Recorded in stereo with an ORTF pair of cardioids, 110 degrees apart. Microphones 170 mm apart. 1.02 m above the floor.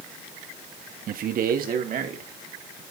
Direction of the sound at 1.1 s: 55° right.